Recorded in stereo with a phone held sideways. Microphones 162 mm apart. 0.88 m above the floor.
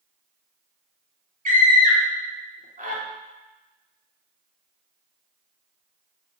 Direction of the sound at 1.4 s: 55° right (ahead or behind).